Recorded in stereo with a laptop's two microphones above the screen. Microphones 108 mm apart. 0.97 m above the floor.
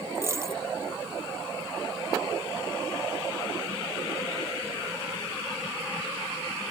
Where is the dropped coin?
25° right (ahead or behind).